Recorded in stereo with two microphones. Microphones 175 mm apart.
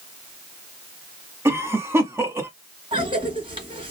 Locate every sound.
1.4 s a cough: 15° right (ahead or behind), 1.1 m
2.9 s a cough: 30° right (ahead or behind), 2.5 m